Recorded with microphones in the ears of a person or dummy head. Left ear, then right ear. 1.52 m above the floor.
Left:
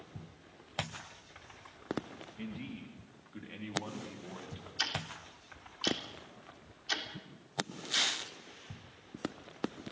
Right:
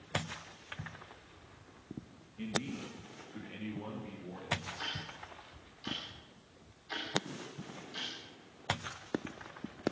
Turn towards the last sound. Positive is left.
turn(degrees=70)  # may be behind; listen again after turning